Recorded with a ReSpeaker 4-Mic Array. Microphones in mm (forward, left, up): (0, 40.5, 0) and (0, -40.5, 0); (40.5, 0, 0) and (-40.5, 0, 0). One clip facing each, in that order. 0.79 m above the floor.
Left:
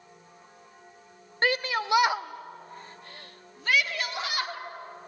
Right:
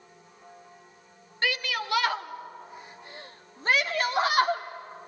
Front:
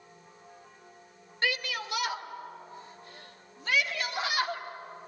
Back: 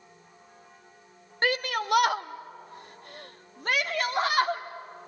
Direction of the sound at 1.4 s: 135° left.